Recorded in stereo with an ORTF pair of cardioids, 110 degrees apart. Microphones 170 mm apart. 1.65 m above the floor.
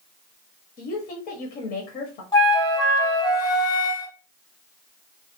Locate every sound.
0.8 s a woman speaking: 70° left, 0.9 m
2.3 s a flute: 20° left, 1.0 m